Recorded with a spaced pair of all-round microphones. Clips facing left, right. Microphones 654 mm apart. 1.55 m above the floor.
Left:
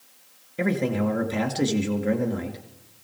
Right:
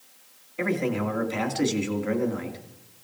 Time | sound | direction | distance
0.6 | a man speaking | 45° left (ahead or behind) | 3 m